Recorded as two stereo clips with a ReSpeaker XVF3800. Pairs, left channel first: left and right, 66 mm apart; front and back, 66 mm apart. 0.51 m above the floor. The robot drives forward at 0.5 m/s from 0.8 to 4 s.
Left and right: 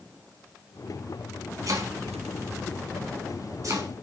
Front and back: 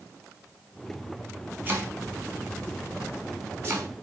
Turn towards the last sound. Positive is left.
turn(degrees=-130)